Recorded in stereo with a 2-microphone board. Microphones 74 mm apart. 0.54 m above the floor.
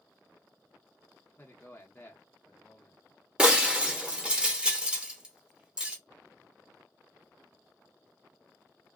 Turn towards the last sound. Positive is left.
turn(degrees=-15)  # may be behind; listen again after turning